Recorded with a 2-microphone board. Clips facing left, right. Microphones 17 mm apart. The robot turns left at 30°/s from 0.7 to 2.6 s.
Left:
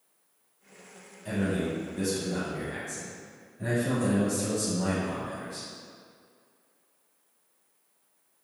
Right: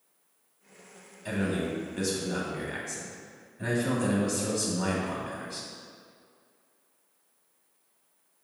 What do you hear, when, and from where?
1.2 s a man speaking: 60° right, 2 m; by 5.7 s 100° right, 2 m